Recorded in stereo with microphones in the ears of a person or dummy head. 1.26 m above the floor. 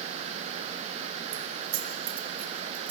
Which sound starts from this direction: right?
Keys jangling, at 1.3 s.